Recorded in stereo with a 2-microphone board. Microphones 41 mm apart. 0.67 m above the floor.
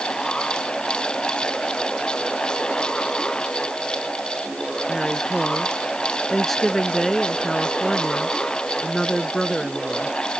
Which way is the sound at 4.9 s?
10° left (ahead or behind).